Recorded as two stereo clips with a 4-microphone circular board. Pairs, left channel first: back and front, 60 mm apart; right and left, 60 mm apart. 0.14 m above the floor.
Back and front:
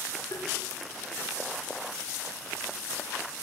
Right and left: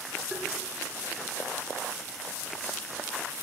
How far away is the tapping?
About 8 m.